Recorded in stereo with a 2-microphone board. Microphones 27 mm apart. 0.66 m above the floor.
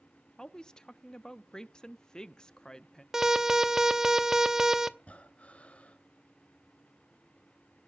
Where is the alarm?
15° right (ahead or behind), 0.7 m.